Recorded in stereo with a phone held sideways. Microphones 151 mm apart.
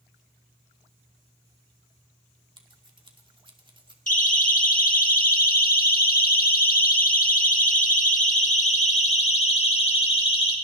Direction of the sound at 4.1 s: 60° left (ahead or behind).